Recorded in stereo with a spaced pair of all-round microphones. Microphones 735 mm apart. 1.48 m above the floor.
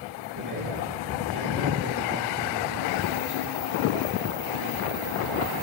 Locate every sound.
0.3 s a man speaking: 25° right (ahead or behind), 3.5 m